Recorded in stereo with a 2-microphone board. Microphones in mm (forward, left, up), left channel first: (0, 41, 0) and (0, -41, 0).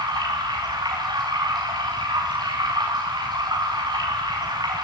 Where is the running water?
60° right (ahead or behind), 8.5 m.